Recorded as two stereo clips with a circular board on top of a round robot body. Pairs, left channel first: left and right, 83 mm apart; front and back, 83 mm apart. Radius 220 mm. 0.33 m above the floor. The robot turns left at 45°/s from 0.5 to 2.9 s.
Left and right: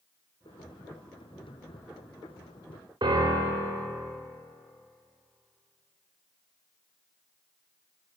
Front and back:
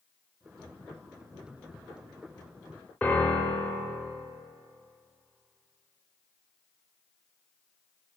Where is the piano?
70° right, 1.0 m.